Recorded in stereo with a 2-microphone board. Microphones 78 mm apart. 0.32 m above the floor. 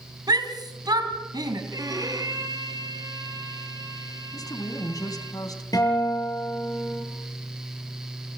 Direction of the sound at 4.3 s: 50° left (ahead or behind).